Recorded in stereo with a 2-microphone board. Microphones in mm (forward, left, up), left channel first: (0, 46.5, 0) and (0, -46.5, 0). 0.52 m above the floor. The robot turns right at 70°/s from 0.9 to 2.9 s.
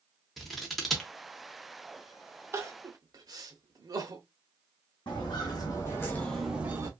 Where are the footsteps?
55° left (ahead or behind), 1.8 m; by 6.9 s 30° right (ahead or behind), 1.0 m.